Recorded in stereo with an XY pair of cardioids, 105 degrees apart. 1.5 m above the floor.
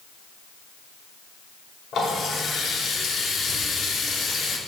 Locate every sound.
1.9 s a running tap: 60° left, 2.5 m